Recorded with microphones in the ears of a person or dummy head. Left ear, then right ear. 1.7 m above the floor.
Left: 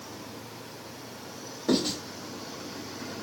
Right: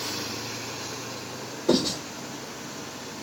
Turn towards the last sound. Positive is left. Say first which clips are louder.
# right 3 dB
turn(degrees=15)  # may be behind; listen again after turning